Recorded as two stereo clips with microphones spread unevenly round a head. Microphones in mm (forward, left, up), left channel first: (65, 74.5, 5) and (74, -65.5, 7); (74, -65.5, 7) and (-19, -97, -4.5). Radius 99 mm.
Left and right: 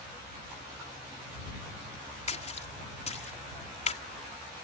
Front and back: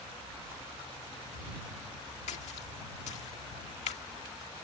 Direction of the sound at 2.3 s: 55° left.